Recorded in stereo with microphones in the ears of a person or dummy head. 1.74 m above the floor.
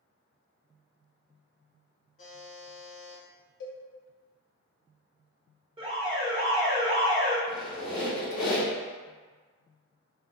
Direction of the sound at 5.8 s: 25° right (ahead or behind).